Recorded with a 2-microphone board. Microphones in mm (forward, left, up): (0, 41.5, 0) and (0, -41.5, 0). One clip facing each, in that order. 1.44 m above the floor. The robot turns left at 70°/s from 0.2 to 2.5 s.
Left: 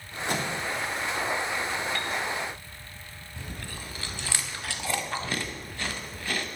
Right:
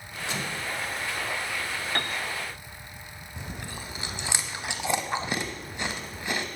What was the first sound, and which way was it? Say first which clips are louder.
A microwave: left 4 dB; 55° left (ahead or behind).